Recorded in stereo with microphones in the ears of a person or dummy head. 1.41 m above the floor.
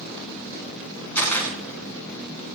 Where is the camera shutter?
10° left (ahead or behind), 6.5 m.